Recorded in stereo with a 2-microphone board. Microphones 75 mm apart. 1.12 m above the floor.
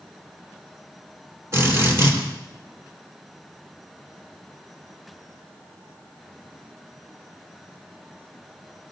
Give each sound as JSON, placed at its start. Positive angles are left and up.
{"t": 1.5, "sound": "a drill", "side_deg": -40, "distance_m": 4.0}